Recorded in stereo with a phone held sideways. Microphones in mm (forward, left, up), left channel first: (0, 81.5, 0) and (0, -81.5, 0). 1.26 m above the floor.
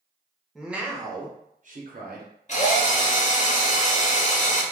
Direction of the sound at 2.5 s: 45° left (ahead or behind).